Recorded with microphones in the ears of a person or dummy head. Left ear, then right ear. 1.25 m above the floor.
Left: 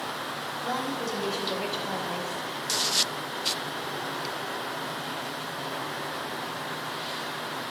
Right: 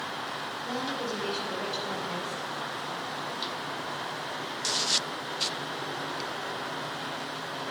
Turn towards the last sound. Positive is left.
turn(degrees=-20)  # may be behind; listen again after turning